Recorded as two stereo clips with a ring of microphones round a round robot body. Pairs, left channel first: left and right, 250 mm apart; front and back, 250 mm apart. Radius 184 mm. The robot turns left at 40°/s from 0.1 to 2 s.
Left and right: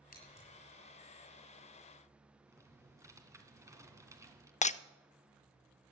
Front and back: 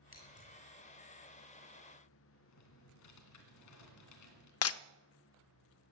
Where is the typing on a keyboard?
10° right, 2.5 m.